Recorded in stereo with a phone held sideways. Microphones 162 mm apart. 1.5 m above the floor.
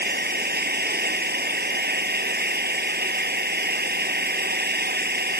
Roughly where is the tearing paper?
No tearing paper in this recording.